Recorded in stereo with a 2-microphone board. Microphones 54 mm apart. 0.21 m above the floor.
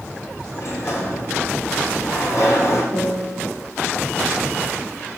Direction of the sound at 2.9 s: 25° left (ahead or behind).